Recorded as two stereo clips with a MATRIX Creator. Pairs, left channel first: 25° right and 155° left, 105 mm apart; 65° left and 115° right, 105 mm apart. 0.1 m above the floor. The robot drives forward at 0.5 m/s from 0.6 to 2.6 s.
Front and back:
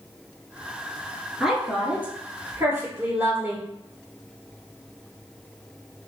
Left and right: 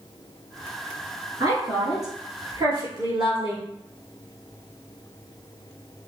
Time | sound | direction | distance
1.4 | a woman speaking | 120° right | 1.4 m